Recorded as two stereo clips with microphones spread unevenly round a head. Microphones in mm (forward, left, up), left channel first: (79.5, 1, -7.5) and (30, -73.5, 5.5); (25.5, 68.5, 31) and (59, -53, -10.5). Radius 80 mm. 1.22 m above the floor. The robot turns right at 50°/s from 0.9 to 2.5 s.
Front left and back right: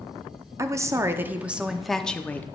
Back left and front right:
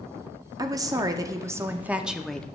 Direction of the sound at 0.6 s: 75° right.